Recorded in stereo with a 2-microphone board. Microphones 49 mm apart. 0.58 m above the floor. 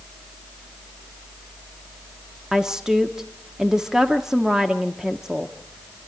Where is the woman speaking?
10° right (ahead or behind), 0.9 m.